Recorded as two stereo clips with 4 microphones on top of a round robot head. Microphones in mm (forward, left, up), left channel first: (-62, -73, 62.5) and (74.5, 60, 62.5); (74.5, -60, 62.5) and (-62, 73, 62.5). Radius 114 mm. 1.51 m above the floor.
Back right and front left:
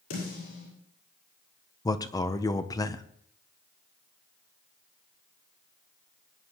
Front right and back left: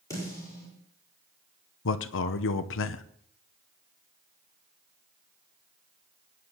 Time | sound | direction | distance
0.1 | a snare drum | 120° right | 10 m
1.9 | a man speaking | 65° right | 0.7 m